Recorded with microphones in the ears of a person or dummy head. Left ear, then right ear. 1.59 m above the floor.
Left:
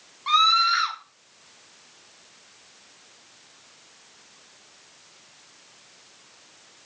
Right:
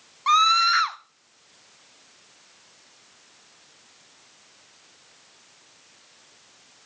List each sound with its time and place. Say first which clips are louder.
0.3 s a scream: right 1 dB; 30° right (ahead or behind), 0.8 m